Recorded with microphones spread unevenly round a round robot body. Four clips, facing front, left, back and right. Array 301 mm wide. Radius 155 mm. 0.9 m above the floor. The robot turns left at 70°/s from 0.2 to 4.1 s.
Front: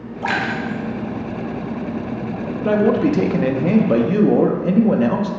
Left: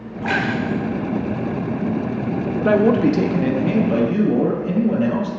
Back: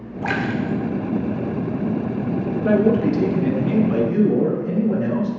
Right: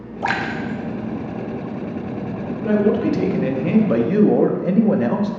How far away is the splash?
About 0.6 m.